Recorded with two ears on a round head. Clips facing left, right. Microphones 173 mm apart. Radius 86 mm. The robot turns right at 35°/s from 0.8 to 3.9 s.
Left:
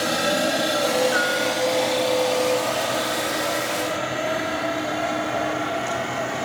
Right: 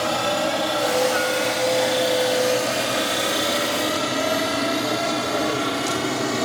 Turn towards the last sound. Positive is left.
turn(degrees=-55)  # may be behind; listen again after turning